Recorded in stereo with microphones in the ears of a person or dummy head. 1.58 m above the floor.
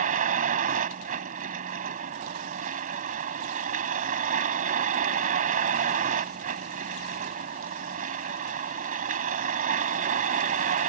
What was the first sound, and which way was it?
A vehicle, 45° right (ahead or behind).